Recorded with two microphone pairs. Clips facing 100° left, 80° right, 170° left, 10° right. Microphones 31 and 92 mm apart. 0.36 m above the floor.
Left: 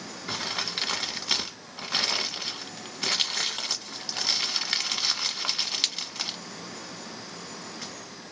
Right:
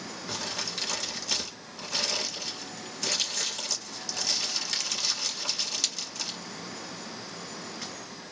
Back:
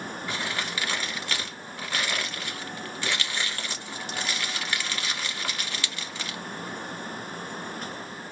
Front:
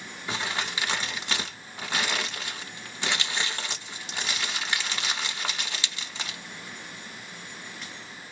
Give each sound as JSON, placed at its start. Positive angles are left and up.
{"t": 0.3, "sound": "crumpling", "azimuth_deg": 55, "distance_m": 0.8}